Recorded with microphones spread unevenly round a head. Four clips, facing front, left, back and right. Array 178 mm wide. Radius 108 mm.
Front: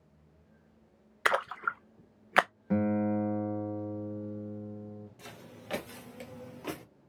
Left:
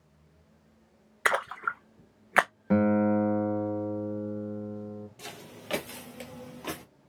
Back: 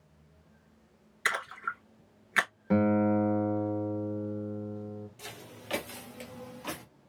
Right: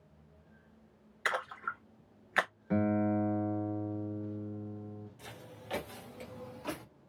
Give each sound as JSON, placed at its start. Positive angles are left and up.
{"t": 1.2, "sound": "a splash", "azimuth_deg": 60, "distance_m": 0.6}
{"t": 2.7, "sound": "a guitar", "azimuth_deg": 125, "distance_m": 1.0}
{"t": 5.2, "sound": "footsteps", "azimuth_deg": 95, "distance_m": 2.0}